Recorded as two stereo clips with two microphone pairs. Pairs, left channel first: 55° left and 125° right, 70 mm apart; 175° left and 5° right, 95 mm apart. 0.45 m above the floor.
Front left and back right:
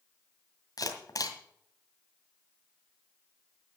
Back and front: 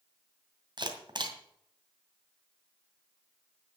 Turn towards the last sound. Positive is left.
turn(degrees=30)